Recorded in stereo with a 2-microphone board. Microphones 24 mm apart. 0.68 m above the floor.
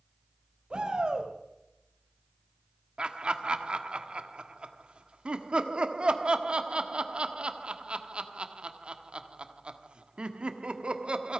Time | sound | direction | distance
0.7 | a shout | 40° right (ahead or behind) | 3 m
3.0 | laughter | 45° right (ahead or behind) | 1.3 m